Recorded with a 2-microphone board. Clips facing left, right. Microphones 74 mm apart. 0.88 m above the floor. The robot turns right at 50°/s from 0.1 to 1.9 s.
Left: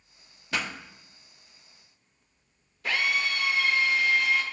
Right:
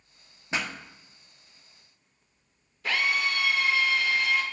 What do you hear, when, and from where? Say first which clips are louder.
0.5 s a pop: even; 25° right (ahead or behind), 1.0 m; by 0.7 s 15° right (ahead or behind), 1.0 m
2.8 s a drill: right 1 dB; centre (ahead or behind), 2.0 m